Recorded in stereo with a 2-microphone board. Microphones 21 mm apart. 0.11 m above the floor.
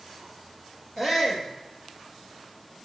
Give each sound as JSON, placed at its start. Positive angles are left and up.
{"t": 1.0, "sound": "a shout", "side_deg": 10, "distance_m": 3.0}